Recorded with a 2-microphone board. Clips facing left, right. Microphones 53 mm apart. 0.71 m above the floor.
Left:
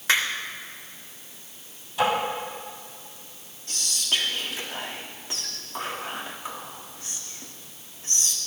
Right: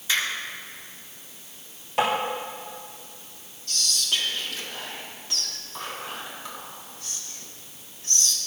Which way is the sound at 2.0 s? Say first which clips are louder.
Even; 80° right.